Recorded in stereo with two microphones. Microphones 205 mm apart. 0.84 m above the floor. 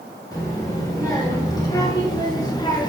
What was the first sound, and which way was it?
A child speaking, 15° left (ahead or behind).